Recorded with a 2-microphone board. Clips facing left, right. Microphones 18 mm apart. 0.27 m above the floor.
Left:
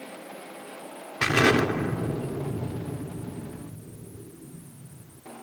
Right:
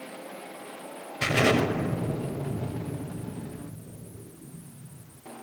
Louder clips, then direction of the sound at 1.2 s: Left 2 dB; 55° left (ahead or behind).